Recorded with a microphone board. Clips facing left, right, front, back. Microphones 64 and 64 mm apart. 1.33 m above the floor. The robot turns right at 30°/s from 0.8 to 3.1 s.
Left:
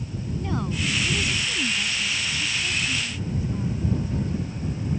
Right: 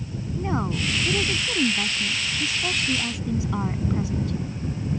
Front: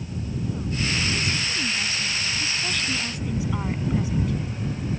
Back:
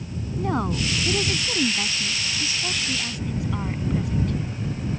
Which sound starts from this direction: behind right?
A woman speaking, at 0.4 s.